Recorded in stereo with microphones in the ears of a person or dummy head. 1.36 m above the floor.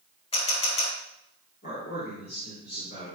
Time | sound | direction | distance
0.3 | a camera shutter | 30° left (ahead or behind) | 2.5 m
1.6 | a man speaking | 45° left (ahead or behind) | 5.5 m